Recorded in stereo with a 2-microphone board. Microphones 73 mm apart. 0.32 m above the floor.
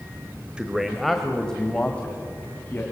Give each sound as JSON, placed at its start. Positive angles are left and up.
{"t": 0.6, "sound": "a man speaking", "side_deg": -10, "distance_m": 1.2}